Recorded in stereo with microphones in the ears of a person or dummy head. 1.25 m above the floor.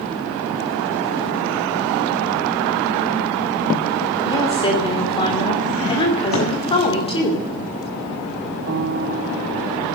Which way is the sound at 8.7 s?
60° right (ahead or behind).